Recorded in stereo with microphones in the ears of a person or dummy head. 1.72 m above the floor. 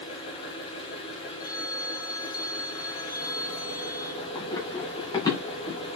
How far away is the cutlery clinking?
No cutlery clinking in this recording.